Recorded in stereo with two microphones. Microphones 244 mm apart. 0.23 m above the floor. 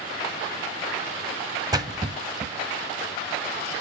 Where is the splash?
15° right (ahead or behind), 0.7 m.